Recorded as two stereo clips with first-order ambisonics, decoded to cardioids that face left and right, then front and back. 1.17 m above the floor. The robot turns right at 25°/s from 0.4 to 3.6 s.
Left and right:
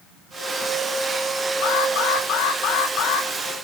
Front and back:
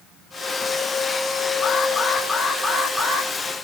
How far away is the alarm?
About 3.5 m.